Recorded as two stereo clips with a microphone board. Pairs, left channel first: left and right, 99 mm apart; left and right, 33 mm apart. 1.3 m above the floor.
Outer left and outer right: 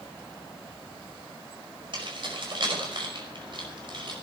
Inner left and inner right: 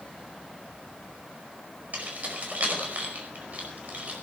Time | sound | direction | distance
1.9 | keys jangling | 55° right (ahead or behind) | 5 m